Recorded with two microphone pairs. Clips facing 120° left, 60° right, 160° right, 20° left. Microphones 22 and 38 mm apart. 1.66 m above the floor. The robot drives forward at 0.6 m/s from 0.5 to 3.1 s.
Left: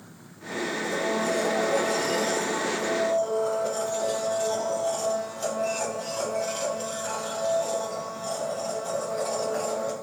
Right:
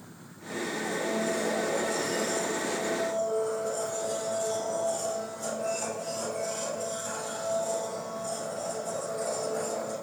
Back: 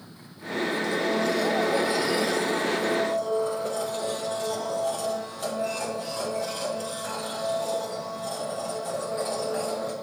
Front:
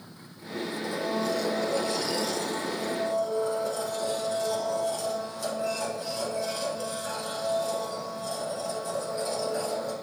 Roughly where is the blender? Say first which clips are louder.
Left 3 dB, back 2 dB; left.